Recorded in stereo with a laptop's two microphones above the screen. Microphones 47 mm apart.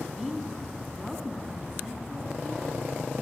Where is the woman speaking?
10° right (ahead or behind), 1.6 m.